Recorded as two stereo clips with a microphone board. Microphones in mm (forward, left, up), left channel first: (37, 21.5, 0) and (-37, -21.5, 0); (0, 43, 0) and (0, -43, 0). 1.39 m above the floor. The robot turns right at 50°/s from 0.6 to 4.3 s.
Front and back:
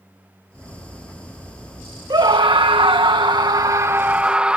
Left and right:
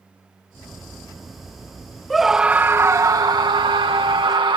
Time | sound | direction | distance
2.1 | a scream | 175° left | ?